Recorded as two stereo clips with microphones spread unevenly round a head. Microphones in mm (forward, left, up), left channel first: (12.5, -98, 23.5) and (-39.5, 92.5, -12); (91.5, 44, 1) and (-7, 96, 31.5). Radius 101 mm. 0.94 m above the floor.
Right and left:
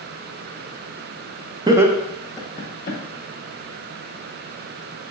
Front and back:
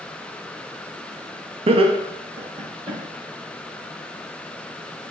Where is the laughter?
135° left, 0.5 m; by 3.0 s 130° right, 0.8 m.